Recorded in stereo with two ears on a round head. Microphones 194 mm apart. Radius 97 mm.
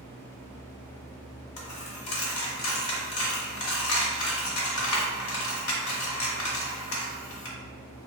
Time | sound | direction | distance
1.6 | a dropped coin | 65° left (ahead or behind) | 0.8 m